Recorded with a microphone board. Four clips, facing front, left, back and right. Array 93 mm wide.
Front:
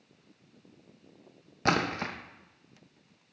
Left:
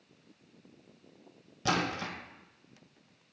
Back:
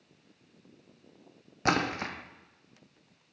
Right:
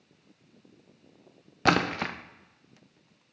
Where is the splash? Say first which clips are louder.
Right 7 dB, even; 95° right, 0.5 m.